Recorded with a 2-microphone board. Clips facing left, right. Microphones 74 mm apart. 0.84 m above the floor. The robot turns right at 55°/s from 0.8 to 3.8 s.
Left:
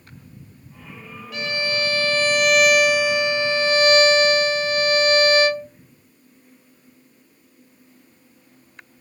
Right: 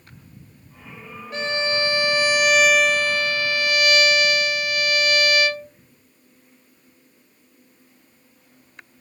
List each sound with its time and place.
1.3 s a violin: 70° right, 0.5 m; by 5.7 s 65° left, 0.5 m